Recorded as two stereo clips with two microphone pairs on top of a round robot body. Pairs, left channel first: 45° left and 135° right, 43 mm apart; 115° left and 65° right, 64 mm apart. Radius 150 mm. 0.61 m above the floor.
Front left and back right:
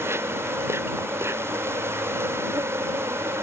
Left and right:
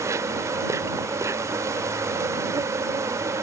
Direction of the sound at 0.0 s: 110° right.